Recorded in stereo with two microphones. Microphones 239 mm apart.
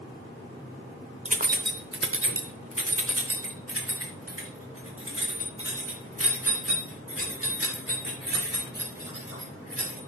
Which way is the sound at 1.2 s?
30° right (ahead or behind).